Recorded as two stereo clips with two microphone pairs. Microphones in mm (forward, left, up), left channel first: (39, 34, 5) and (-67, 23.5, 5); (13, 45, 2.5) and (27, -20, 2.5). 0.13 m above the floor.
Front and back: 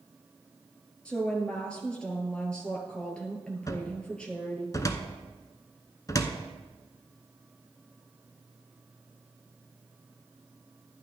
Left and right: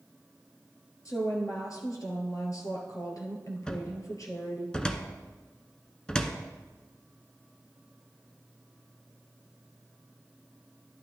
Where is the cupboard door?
35° left, 0.8 m.